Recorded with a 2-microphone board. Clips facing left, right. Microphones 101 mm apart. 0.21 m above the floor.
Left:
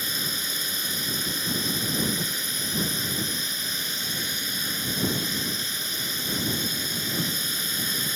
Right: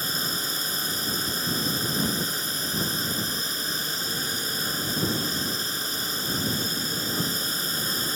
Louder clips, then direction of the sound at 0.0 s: Right 2 dB; 35° right (ahead or behind).